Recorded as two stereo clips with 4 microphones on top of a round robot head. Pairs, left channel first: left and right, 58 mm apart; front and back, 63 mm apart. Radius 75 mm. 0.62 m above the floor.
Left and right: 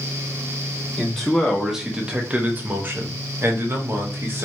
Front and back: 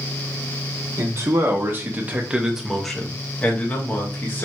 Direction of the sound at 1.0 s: 175° left.